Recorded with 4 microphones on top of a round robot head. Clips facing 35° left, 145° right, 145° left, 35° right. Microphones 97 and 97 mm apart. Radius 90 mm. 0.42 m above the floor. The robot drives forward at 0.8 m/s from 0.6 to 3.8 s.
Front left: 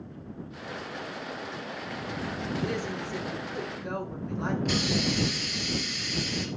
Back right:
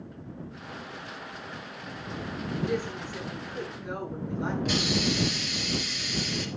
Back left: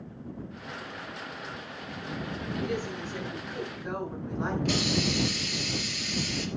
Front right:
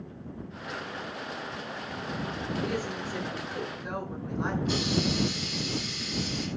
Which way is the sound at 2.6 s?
50° left.